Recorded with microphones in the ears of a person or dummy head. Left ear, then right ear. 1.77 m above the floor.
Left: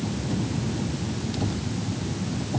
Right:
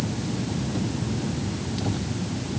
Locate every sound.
Only background noise.